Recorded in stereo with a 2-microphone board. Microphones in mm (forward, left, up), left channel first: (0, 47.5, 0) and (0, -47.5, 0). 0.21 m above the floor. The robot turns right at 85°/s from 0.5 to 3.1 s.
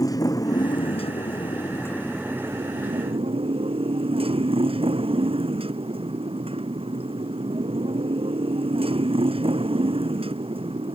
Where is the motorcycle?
40° left; by 11.0 s 100° right.